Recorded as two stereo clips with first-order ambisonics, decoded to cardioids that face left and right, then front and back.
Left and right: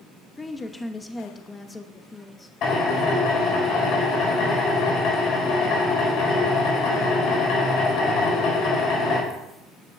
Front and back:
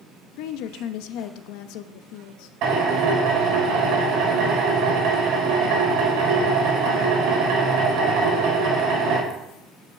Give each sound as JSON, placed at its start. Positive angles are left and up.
{"t": 0.4, "sound": "a woman speaking", "azimuth_deg": 10, "distance_m": 0.9}
{"t": 2.6, "sound": "a drill", "azimuth_deg": 135, "distance_m": 4.5}